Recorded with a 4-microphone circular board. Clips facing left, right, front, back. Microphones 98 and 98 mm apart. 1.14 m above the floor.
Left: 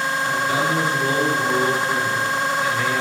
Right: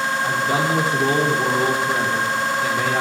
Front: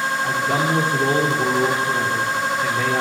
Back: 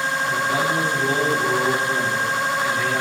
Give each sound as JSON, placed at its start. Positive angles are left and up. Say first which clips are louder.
{"t": 0.2, "sound": "a man speaking", "louder": "even, front 1 dB", "azimuth_deg": -35, "distance_m": 3.0}